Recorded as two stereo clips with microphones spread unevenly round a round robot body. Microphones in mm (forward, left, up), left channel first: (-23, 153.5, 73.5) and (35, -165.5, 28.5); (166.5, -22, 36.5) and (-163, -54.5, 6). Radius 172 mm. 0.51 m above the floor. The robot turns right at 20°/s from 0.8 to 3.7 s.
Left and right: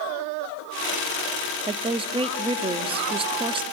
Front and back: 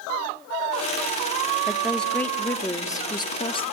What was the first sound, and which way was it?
A woman speaking, 100° right.